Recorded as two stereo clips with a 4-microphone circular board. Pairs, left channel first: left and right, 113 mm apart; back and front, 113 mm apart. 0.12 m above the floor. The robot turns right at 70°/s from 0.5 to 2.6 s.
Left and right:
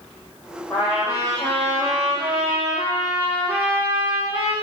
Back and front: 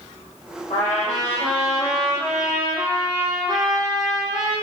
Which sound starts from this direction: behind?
A trumpet, at 0.7 s.